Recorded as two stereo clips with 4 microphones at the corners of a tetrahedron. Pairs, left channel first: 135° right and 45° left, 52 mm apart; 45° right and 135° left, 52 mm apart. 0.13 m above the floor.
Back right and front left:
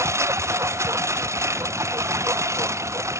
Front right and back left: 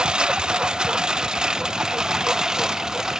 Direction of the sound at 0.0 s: 60° left.